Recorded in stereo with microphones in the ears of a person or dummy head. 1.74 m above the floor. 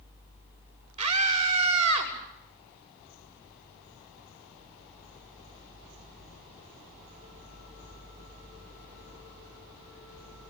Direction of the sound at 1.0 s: 35° right (ahead or behind).